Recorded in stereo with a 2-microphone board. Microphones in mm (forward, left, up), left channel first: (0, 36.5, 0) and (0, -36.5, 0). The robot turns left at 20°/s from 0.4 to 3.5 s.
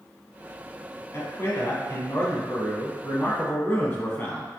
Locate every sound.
1.1 s a man speaking: 95° left, 1.4 m; by 4.5 s 50° left, 1.4 m